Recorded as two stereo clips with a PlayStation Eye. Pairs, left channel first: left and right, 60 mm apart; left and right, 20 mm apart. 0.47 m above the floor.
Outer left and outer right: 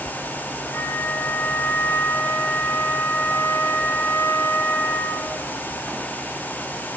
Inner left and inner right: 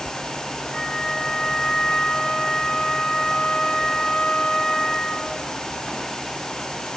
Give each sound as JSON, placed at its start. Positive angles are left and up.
{"t": 0.7, "sound": "a flute", "side_deg": 45, "distance_m": 2.0}